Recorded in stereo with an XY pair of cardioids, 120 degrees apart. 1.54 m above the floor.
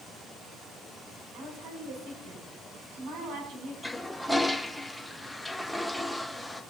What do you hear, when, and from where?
1.3 s a woman speaking: 70° right, 7 m
3.8 s a toilet flushing: straight ahead, 1.4 m